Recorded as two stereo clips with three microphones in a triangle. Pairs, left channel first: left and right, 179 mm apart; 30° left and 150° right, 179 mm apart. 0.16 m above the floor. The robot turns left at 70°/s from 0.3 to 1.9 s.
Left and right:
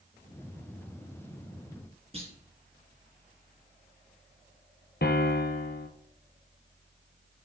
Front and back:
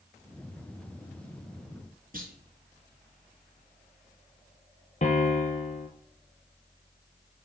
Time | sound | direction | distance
2.1 | a clunk | 135° right | 1.6 m
5.0 | a piano | 75° left | 0.9 m